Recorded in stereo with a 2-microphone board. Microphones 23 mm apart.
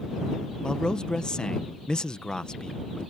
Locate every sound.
0.6 s a man speaking: 40° left (ahead or behind)